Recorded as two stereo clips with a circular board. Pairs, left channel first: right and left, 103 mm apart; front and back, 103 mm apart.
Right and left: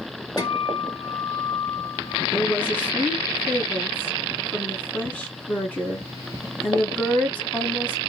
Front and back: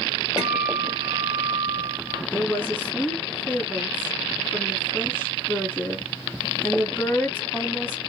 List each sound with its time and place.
0.4 s a guitar: 100° right, 1.8 m
2.3 s a woman speaking: 40° right, 1.5 m